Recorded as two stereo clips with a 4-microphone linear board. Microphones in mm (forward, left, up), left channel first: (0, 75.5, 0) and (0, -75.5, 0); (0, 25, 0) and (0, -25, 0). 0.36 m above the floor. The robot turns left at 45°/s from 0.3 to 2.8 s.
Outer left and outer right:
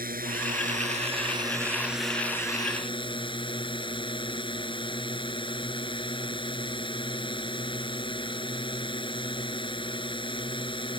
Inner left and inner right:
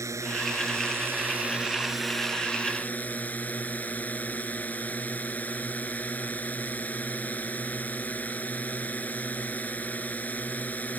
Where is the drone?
100° right; by 11.0 s 145° left.